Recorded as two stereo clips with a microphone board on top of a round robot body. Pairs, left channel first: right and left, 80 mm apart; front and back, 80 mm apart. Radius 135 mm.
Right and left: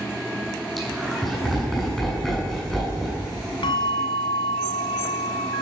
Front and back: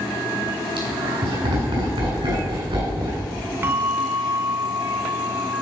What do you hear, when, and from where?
0.8 s laughter: straight behind, 7.5 m
3.6 s a bell: 115° right, 1.0 m